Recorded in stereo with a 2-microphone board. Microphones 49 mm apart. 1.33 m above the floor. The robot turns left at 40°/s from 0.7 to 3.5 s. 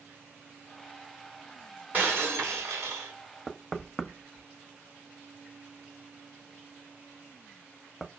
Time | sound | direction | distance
1.9 | breaking glass | 40° right | 2.5 m
3.5 | knocking | centre (ahead or behind) | 0.7 m